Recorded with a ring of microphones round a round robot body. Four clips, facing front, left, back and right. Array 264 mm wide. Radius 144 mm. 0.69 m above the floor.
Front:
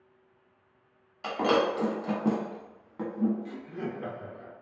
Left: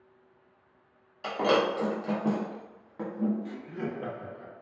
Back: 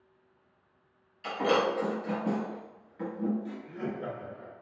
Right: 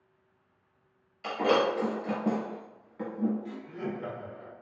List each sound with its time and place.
1.2 s breaking glass: 30° left, 0.9 m
3.5 s laughter: 60° left, 0.9 m